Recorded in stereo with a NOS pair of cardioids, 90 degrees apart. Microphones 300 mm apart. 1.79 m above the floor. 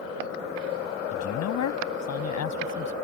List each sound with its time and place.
1.1 s a man speaking: 70° left